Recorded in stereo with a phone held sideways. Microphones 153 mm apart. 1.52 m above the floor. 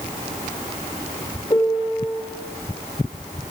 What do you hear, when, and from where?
1.5 s a piano: 30° left (ahead or behind), 2.5 m